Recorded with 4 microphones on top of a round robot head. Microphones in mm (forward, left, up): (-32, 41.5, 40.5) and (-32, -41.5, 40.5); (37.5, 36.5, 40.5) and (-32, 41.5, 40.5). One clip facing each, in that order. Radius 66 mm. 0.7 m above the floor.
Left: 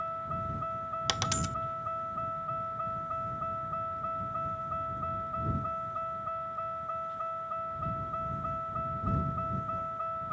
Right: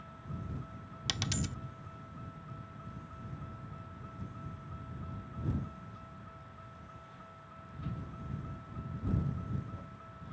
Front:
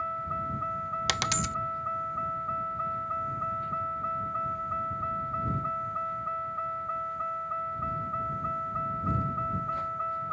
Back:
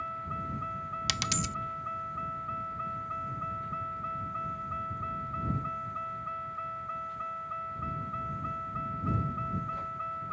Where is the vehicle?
55° left.